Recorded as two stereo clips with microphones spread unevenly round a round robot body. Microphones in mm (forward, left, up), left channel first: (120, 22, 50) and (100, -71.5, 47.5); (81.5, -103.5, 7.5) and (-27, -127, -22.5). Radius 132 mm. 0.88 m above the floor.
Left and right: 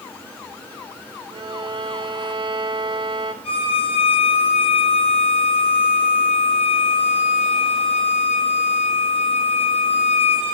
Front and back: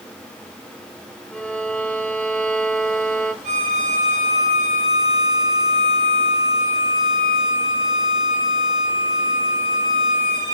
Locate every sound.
1.3 s a violin: 75° right, 2.5 m
3.4 s a violin: 135° left, 7 m